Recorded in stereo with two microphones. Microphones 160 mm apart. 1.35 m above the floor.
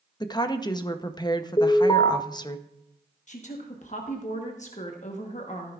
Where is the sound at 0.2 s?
25° left (ahead or behind), 0.7 m.